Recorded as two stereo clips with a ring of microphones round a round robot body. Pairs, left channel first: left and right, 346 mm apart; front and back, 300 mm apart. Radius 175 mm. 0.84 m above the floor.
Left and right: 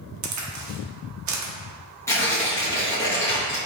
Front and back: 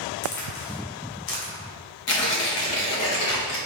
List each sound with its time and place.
0.2 s a crack: 45° right, 0.8 m
2.1 s tearing paper: 10° left, 1.2 m